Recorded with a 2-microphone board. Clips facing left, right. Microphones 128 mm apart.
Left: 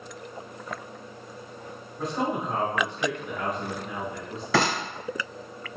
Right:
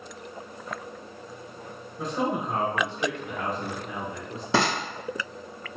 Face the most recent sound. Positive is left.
turn(degrees=-25)  # may be behind; listen again after turning